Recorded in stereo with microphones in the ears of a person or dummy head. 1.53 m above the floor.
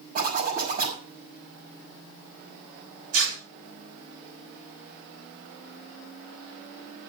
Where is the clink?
I don't hear a clink.